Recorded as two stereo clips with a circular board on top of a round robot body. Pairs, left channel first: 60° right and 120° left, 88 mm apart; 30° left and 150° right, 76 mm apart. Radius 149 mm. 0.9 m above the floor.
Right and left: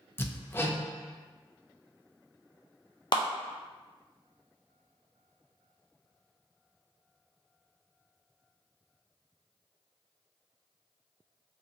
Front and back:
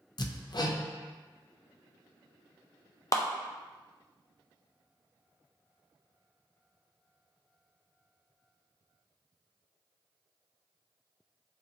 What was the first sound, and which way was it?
Hammering, 5° left.